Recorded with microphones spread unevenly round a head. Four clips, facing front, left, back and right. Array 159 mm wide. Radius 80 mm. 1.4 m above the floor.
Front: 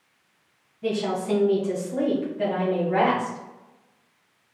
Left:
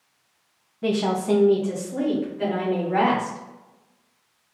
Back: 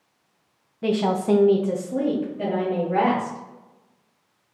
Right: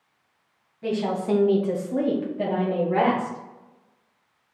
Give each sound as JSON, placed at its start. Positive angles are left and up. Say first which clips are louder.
{"t": 0.8, "sound": "a woman speaking", "louder": "left 3 dB, back 4 dB", "azimuth_deg": 140, "distance_m": 0.6}